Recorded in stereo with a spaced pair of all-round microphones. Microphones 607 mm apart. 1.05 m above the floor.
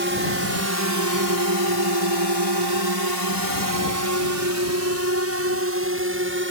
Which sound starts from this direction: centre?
A drone, at 0.0 s.